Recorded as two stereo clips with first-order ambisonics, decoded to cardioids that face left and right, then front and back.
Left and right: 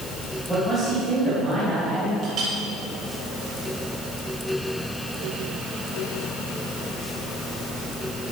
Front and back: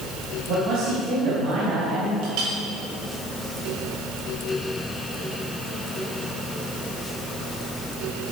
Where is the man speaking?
170° left, 4.5 m.